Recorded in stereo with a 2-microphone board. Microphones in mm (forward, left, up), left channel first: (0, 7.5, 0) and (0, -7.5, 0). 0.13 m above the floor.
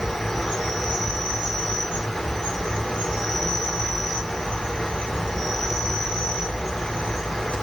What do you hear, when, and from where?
0.0 s an insect: 70° left (ahead or behind), 1.1 m